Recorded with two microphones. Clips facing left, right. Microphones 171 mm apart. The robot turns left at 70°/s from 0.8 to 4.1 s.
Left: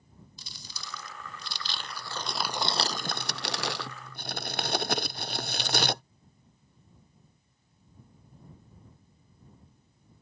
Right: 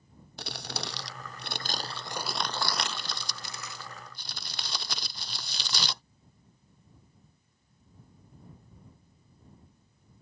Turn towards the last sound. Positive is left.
turn(degrees=55)  # may be behind; listen again after turning